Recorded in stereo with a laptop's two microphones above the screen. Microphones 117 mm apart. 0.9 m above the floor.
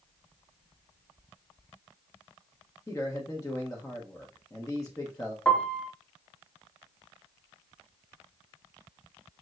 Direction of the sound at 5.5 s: 5° left (ahead or behind).